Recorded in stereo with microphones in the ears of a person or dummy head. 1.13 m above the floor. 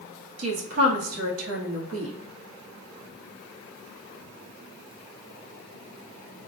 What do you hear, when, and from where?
0.4 s a woman speaking: 80° right, 1.3 m